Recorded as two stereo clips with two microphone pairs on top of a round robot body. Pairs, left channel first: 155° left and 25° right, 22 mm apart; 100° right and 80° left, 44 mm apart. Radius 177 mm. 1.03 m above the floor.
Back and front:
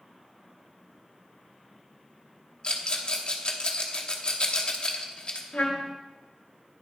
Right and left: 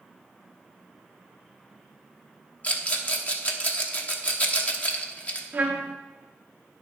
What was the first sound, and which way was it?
A rattle, 155° right.